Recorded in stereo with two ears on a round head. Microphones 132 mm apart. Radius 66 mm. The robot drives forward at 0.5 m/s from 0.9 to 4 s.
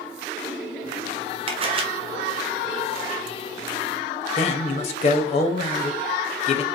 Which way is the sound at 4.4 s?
50° left (ahead or behind).